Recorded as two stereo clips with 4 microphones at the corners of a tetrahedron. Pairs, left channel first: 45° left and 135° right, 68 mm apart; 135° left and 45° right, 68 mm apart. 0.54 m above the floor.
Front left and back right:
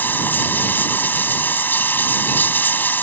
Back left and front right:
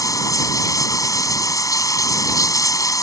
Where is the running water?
105° left.